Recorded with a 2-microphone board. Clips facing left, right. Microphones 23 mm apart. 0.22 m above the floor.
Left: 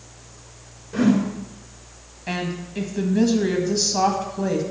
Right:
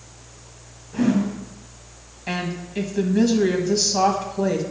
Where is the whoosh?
50° left (ahead or behind), 3 m.